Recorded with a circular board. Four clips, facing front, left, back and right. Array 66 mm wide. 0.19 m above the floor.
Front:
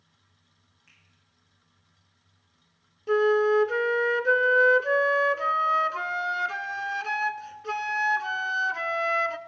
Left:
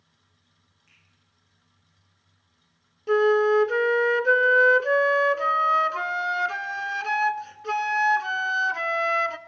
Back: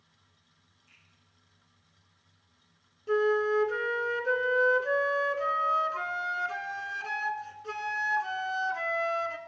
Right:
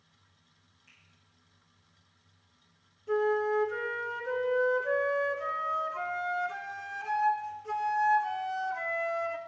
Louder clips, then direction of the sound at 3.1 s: Left 8 dB, front 4 dB; 65° left.